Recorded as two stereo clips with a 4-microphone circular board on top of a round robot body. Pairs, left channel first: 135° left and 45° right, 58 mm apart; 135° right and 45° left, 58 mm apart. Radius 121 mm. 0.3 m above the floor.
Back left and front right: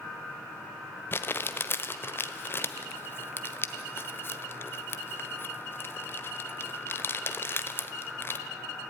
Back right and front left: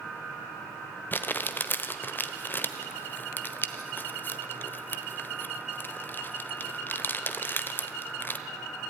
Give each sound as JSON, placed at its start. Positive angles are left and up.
{"t": 1.1, "sound": "crumpling", "azimuth_deg": 180, "distance_m": 1.3}